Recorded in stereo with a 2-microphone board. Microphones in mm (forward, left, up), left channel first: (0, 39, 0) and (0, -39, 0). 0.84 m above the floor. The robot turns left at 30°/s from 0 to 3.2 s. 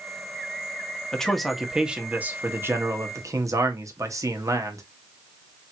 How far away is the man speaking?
About 1.1 m.